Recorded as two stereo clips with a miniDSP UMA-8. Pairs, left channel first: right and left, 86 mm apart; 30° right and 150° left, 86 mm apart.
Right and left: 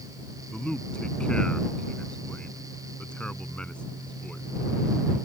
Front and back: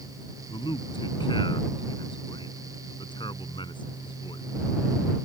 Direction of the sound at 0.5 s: 10° right.